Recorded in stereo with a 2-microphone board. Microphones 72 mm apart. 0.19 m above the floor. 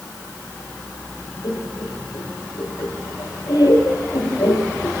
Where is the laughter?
65° left (ahead or behind), 6.5 m.